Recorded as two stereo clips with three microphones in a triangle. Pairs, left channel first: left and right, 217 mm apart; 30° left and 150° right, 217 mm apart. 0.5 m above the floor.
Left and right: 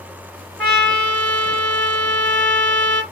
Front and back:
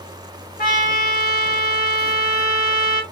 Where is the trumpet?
10° left, 1.7 m.